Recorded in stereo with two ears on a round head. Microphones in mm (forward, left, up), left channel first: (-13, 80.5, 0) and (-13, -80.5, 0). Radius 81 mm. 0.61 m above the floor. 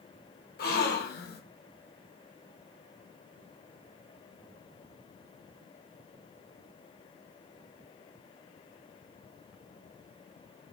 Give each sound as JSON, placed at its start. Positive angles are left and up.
{"t": 0.6, "sound": "a gasp", "side_deg": 55, "distance_m": 0.9}